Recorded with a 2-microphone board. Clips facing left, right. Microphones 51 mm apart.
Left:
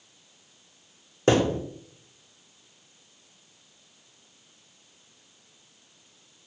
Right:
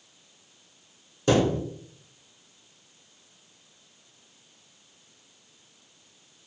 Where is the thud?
40° left (ahead or behind), 0.7 m.